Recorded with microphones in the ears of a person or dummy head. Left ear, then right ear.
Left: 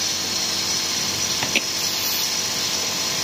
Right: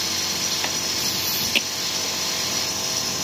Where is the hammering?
Centre (ahead or behind).